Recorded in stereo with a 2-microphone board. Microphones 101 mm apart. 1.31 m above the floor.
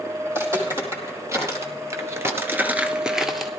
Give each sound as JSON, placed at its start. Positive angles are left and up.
{"t": 0.3, "sound": "footsteps", "side_deg": -25, "distance_m": 3.5}